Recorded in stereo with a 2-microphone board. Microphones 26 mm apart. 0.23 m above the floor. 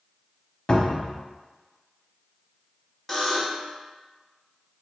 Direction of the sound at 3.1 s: 5° left (ahead or behind).